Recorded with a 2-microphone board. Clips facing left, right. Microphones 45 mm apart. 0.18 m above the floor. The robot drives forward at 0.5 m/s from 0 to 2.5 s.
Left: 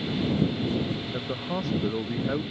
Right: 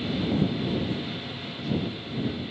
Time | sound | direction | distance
1.1 | a man speaking | 60° left (ahead or behind) | ?